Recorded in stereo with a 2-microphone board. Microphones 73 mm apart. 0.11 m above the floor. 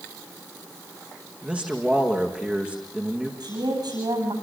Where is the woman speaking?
80° right, 9 m.